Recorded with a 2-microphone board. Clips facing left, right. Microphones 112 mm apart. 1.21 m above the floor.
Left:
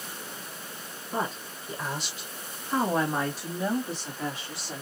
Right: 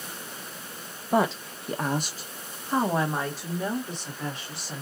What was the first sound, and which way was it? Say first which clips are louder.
A woman speaking: right 8 dB; 85° right.